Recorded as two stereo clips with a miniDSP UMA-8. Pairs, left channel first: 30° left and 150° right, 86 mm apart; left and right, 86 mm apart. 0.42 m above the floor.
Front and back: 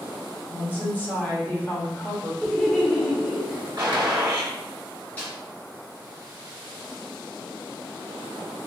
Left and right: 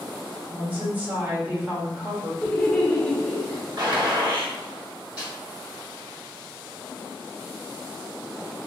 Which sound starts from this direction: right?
A gunshot, at 3.8 s.